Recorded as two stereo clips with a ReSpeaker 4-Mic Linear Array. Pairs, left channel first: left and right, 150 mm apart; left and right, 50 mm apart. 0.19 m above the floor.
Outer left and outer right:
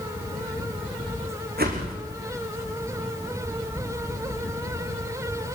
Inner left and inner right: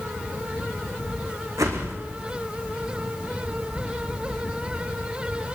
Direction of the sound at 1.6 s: 75° right (ahead or behind).